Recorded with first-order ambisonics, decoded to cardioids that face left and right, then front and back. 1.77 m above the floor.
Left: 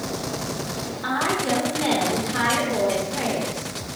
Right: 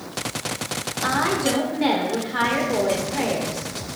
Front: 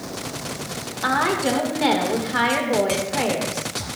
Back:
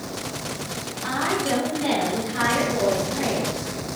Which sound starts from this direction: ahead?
A woman speaking, at 1.0 s.